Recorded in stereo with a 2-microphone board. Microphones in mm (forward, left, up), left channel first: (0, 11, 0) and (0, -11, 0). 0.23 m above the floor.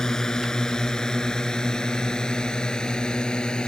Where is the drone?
25° left (ahead or behind); by 3.7 s 40° left (ahead or behind).